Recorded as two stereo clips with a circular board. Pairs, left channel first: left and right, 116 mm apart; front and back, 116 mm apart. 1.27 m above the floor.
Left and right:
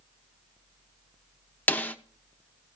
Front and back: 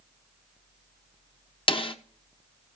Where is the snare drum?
20° left, 0.8 m.